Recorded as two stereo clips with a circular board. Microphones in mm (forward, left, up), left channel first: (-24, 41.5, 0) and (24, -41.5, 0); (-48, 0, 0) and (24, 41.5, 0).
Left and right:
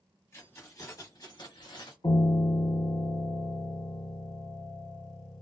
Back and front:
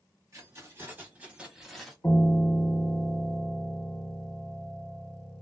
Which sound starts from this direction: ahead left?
Keys jangling, at 0.3 s.